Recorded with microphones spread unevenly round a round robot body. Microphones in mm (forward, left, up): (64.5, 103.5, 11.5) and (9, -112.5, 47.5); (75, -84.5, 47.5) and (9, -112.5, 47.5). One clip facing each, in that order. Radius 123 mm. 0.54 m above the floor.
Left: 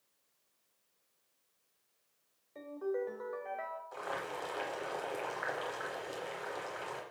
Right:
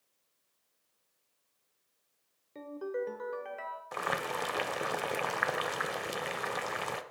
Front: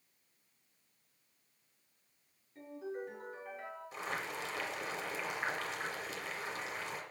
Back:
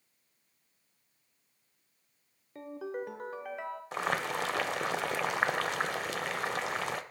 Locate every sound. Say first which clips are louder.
2.5 s a ringtone: even, back 5 dB; 165° right, 0.8 m
3.9 s boiling: right 6 dB, back 9 dB; 135° right, 0.7 m